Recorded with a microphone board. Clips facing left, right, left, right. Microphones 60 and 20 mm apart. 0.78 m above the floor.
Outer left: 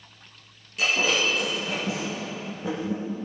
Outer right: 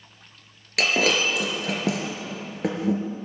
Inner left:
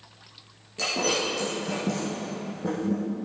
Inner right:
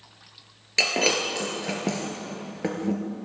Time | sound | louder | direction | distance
0.8 | breaking glass | outer right 2 dB, inner right 4 dB | 70° right (ahead or behind) | 3 m